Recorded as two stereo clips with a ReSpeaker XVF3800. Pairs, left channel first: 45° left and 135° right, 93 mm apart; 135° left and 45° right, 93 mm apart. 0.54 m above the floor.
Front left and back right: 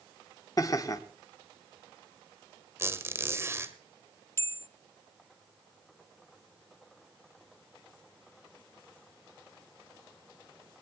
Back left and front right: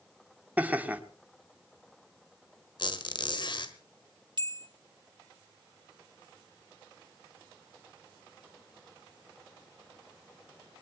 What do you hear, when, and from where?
0.6 s laughter: 20° left, 1.7 m
2.8 s a squeak: 165° left, 1.7 m
4.4 s a bell: 15° right, 0.7 m